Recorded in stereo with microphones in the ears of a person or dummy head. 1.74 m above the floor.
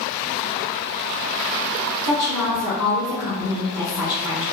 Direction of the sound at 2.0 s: Centre (ahead or behind).